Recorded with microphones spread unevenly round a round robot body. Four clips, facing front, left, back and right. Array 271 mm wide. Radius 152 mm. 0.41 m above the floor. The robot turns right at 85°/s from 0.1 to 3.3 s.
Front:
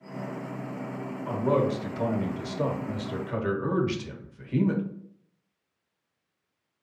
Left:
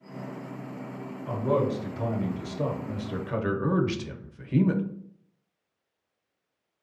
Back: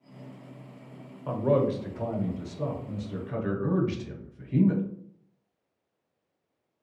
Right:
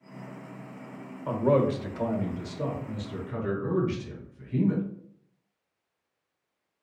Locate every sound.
1.3 s a man speaking: 110° right, 1.2 m; by 4.8 s 65° left, 1.2 m